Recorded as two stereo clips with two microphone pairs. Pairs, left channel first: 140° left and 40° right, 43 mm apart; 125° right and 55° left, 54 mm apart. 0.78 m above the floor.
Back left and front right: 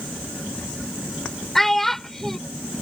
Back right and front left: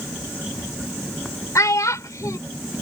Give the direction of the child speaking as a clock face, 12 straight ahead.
4 o'clock.